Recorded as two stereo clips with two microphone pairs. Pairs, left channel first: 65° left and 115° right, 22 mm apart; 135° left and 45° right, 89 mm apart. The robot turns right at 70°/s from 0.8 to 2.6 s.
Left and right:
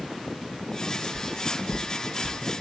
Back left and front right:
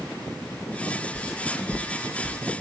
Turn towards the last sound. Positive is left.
turn(degrees=90)